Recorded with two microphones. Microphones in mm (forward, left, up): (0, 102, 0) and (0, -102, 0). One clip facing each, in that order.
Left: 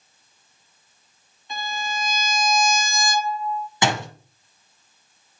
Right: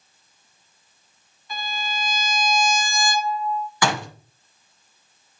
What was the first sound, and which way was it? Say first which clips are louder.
A violin: left 1 dB; 25° left (ahead or behind).